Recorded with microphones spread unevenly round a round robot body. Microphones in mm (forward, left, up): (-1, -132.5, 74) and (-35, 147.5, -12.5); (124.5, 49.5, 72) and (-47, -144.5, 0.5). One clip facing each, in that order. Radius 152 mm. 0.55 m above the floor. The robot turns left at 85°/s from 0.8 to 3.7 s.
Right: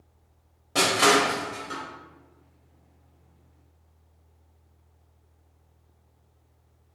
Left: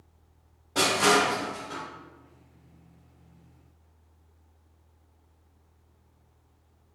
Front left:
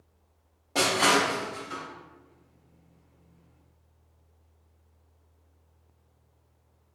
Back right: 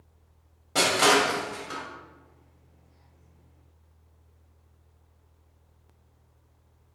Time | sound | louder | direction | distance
0.8 | crushing | right 2 dB, back right 2 dB | 65° right | 1.2 m